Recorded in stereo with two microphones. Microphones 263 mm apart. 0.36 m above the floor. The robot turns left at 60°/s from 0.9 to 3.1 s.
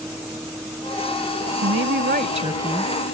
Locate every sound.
0.0 s a vehicle: 175° right; by 3.1 s 50° left
1.6 s a woman speaking: 105° right; by 2.9 s 175° left